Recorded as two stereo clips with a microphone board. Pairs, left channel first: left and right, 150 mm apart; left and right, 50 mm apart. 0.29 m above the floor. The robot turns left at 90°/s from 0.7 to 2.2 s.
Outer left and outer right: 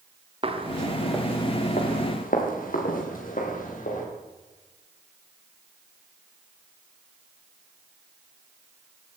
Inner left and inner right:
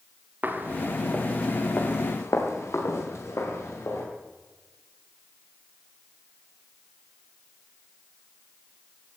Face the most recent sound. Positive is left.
turn(degrees=70)  # may be behind; listen again after turning